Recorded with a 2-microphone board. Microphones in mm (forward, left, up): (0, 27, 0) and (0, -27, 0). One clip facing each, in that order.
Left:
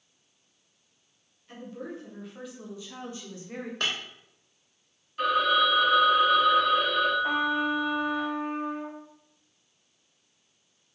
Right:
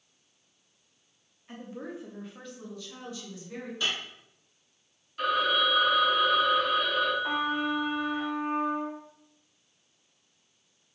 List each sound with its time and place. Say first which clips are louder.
1.5 s a woman speaking: left 1 dB; 30° right (ahead or behind), 1.0 m; by 3.7 s 45° left (ahead or behind), 1.1 m
3.8 s breaking glass: left 1 dB; 55° left (ahead or behind), 1.1 m
5.2 s a phone ringing: left 3 dB; 5° left (ahead or behind), 1.4 m
7.2 s a trumpet: left 3 dB; 5° left (ahead or behind), 1.9 m